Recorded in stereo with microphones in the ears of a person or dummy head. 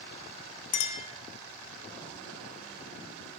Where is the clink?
40° left (ahead or behind), 0.9 m.